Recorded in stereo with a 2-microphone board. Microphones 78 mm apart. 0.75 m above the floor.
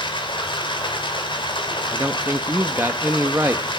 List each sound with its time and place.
0.0 s running water: 75° left (ahead or behind), 3 m
1.9 s a man speaking: 25° right (ahead or behind), 1.0 m